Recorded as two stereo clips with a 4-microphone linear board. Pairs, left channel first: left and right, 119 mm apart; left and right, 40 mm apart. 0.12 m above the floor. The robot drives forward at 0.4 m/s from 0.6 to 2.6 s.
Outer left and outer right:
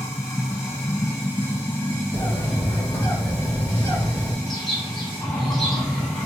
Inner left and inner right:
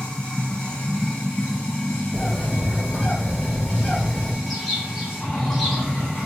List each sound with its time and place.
0.0 s running water: 25° left (ahead or behind), 1.1 m; by 6.3 s 15° left (ahead or behind), 1.9 m
2.1 s a bird: 20° left (ahead or behind), 1.3 m
4.5 s a bird: centre (ahead or behind), 0.9 m